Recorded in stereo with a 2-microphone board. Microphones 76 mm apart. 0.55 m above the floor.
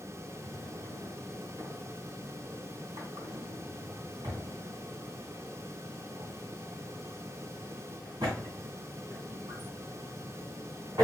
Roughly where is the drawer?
Right.